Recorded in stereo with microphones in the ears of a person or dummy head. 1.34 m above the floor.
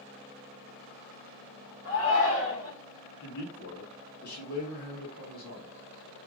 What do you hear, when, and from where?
1.9 s a shout: 70° left (ahead or behind), 1.3 m
3.2 s a man speaking: 55° left (ahead or behind), 2.5 m